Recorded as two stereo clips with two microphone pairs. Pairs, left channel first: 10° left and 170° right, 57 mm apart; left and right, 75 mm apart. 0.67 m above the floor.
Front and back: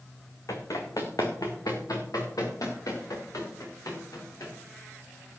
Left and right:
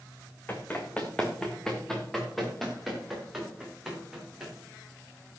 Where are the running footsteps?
25° left, 2.5 m; by 4.5 s 10° right, 6.5 m.